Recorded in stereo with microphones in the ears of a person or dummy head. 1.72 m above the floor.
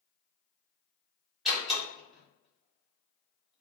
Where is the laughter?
I don't hear laughter.